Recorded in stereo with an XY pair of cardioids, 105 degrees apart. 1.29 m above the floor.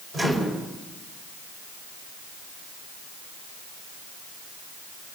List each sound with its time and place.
0.1 s a microwave: 30° right, 5.5 m